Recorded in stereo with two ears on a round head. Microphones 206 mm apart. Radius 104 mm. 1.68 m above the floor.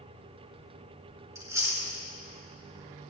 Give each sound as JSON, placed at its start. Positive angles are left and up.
{"t": 1.4, "sound": "chewing", "side_deg": -15, "distance_m": 3.5}